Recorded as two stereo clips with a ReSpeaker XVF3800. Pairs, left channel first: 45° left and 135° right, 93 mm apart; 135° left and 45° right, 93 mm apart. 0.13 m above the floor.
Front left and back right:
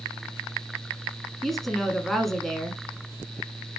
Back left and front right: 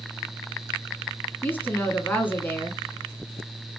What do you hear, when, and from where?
1.4 s a woman speaking: 130° left, 1.2 m